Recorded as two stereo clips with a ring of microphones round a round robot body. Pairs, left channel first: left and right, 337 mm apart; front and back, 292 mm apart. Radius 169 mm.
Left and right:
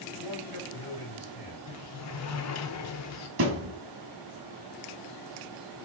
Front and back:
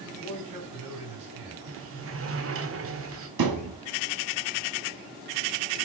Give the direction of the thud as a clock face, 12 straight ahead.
5 o'clock.